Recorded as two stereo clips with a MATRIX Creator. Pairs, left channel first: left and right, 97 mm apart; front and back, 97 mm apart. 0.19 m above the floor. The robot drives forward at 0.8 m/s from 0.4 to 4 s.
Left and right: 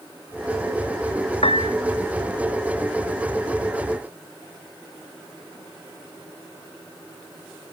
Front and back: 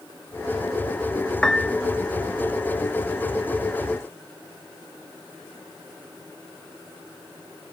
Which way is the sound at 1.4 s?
85° left.